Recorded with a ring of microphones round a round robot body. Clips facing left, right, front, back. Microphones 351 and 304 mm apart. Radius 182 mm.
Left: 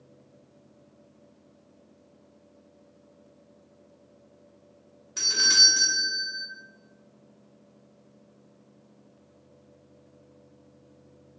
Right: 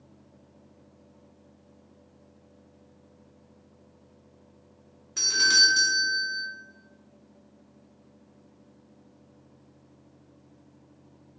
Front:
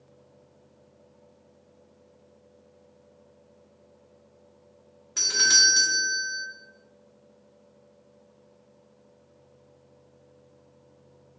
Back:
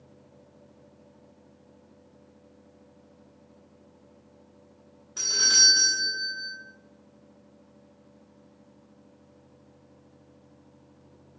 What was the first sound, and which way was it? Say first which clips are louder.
A doorbell: right 1 dB, front 2 dB; 5° right.